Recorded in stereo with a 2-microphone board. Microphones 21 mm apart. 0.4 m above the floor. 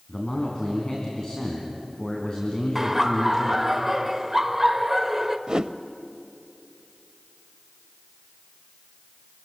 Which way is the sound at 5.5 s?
35° right (ahead or behind).